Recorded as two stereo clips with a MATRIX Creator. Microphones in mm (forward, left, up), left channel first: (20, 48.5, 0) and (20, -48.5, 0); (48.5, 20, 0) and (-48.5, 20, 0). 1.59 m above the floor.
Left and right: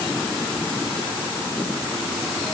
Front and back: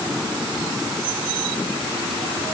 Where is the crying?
No crying in this recording.